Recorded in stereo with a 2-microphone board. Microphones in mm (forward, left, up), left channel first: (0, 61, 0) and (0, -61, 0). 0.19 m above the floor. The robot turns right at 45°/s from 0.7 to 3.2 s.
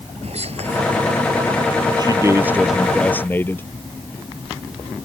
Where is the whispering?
60° right (ahead or behind).